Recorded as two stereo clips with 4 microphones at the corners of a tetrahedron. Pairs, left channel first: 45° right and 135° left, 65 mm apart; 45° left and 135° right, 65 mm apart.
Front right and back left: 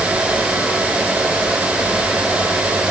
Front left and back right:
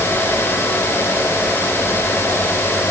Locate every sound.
Only background noise.